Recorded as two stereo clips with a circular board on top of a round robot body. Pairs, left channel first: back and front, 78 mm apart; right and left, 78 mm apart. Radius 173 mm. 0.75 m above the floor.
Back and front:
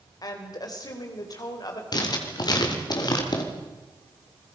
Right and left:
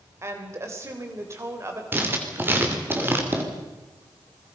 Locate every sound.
0.2 s a woman speaking: 145° left, 3.5 m
1.9 s writing: 150° left, 3 m